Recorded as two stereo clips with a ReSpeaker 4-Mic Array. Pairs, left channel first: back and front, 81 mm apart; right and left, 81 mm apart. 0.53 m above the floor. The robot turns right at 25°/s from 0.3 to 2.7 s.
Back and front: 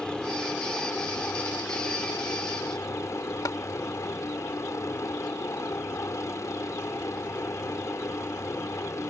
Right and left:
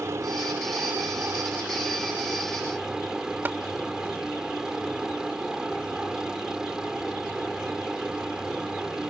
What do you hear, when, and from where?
0.0 s a helicopter: 105° left; by 9.1 s 165° left
3.5 s tapping: 150° left